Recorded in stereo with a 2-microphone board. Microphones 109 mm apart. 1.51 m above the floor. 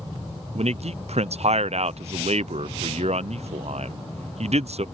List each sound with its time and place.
0.6 s a man speaking: 75° right (ahead or behind)